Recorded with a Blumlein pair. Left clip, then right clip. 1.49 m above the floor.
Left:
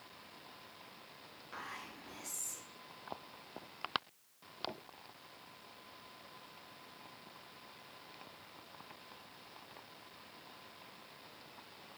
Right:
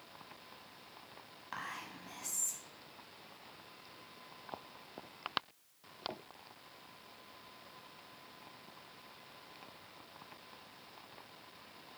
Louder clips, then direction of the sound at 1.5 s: Right 3 dB; 60° right.